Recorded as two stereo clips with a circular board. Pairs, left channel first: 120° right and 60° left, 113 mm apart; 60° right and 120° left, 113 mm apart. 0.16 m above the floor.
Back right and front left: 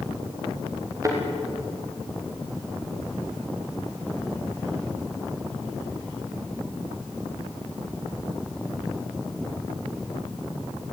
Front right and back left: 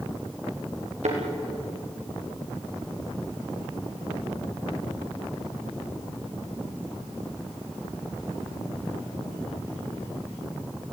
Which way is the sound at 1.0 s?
120° left.